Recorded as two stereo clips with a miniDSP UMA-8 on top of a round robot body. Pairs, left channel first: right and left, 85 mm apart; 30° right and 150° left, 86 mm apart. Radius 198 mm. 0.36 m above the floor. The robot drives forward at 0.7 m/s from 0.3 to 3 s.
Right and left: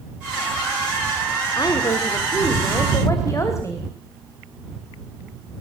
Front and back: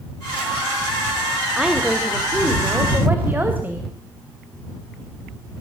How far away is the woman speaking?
About 2 m.